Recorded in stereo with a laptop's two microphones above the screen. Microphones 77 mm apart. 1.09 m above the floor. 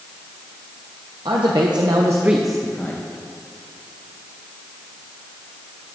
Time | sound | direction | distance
1.2 | a man speaking | 80° right | 1.1 m